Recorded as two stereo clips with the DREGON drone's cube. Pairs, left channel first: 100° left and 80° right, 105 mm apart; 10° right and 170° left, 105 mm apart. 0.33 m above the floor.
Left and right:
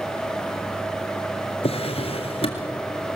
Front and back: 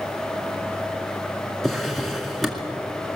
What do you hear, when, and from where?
1.6 s a drawer: 75° left, 2 m